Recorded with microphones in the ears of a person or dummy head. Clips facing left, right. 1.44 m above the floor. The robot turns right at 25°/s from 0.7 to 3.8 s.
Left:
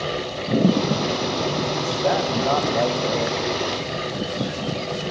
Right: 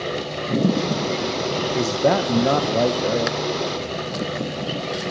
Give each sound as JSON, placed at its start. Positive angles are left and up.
{"t": 1.8, "sound": "a man speaking", "azimuth_deg": -60, "distance_m": 1.1}